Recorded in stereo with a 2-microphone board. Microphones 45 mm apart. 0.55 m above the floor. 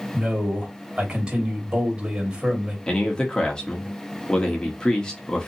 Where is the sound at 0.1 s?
20° right (ahead or behind), 2 m.